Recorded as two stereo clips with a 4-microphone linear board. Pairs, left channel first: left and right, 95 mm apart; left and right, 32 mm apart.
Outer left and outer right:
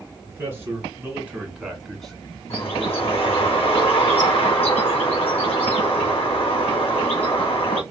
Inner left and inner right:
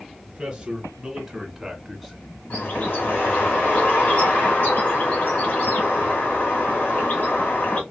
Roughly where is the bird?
Left.